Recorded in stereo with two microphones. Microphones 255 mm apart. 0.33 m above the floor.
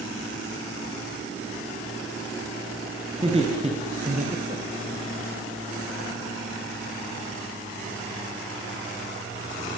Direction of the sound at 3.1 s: 20° right (ahead or behind).